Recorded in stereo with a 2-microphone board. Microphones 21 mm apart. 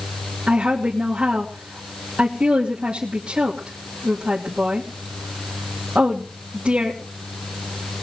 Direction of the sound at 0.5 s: 70° right (ahead or behind).